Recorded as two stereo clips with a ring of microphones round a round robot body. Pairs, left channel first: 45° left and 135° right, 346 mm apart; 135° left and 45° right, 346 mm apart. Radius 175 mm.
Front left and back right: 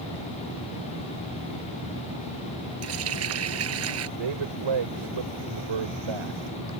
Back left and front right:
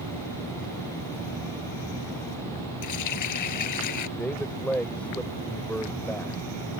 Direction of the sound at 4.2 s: 140° right.